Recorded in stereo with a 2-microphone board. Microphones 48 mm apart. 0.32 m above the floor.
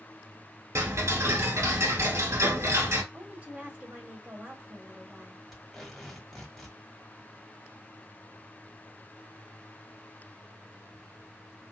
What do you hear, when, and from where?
0.8 s ticking: 85° right, 1.3 m
3.1 s a woman speaking: 35° right (ahead or behind), 1.6 m
5.5 s tape being pulled: 5° left (ahead or behind), 1.3 m